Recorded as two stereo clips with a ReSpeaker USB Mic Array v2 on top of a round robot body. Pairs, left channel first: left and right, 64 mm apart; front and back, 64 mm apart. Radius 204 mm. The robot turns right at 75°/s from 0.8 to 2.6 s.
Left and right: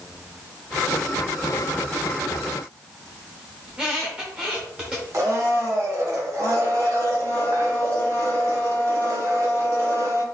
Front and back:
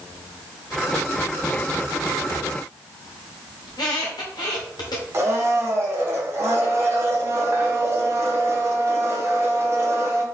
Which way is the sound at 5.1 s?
130° right.